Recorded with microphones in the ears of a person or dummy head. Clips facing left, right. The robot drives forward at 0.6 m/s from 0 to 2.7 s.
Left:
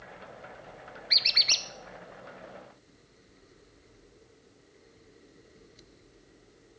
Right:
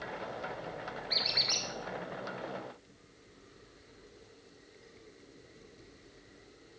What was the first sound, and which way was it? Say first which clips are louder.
A squeak: right 5 dB; 40° left (ahead or behind).